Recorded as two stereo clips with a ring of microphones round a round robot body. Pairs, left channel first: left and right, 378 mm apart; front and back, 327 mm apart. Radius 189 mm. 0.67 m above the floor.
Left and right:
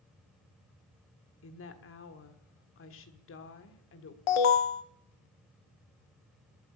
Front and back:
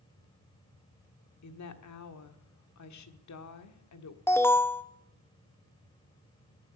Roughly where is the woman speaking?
Ahead left.